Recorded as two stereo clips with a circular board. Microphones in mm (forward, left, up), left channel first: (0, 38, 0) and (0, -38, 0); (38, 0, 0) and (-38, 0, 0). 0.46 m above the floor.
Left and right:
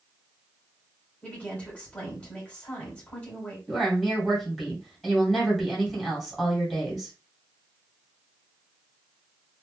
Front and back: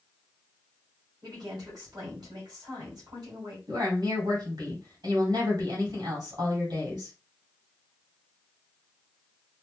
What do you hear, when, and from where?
1.2 s a woman speaking: 165° left, 1.9 m
3.7 s a woman speaking: 175° left, 2 m